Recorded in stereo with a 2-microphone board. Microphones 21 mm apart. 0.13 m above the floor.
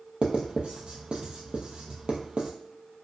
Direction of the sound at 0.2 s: 50° right (ahead or behind).